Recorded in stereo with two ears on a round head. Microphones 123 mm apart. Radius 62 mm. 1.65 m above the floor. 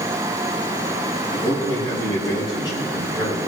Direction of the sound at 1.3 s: 30° left (ahead or behind).